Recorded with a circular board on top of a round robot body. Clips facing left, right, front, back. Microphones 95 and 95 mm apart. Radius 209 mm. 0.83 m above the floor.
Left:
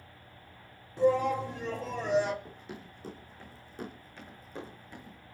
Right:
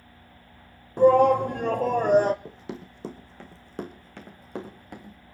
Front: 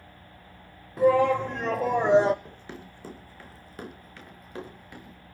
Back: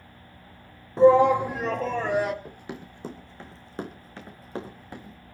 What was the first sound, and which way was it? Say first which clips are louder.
A shout: right 9 dB, back 4 dB; 120° right.